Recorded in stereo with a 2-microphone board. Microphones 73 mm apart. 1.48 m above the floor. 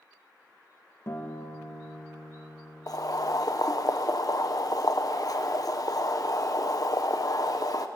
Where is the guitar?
40° left (ahead or behind), 1.7 m.